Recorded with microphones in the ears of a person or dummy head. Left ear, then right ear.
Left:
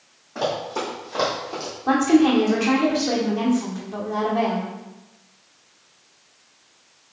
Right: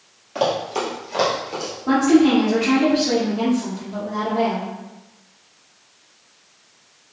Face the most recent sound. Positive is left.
turn(degrees=30)  # may be behind; listen again after turning